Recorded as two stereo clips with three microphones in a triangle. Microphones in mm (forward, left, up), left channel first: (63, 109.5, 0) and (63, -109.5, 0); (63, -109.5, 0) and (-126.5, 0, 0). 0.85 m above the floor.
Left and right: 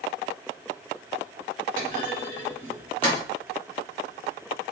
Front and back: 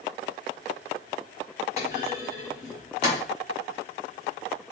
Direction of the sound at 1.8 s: 25° left.